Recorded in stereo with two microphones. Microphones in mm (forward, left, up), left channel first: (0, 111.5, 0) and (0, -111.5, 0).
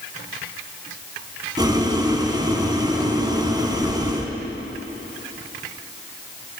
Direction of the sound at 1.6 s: 20° right (ahead or behind).